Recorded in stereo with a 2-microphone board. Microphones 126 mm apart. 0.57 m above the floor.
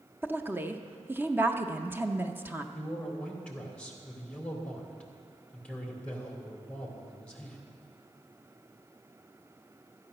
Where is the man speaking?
10° left (ahead or behind), 2 m.